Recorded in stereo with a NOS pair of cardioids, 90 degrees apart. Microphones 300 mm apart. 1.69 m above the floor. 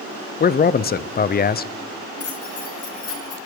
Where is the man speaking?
30° left, 0.6 m.